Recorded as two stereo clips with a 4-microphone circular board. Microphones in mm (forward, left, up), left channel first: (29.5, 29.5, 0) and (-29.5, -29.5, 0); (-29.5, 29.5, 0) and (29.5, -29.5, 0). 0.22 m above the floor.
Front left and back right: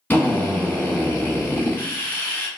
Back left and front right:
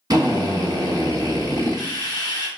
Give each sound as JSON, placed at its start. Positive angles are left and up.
{"t": 0.1, "sound": "a drill", "azimuth_deg": -20, "distance_m": 1.1}